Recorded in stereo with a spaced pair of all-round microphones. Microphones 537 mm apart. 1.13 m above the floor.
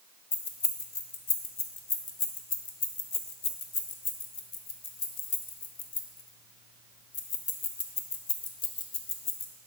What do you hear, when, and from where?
0.3 s keys jangling: 65° left (ahead or behind), 0.8 m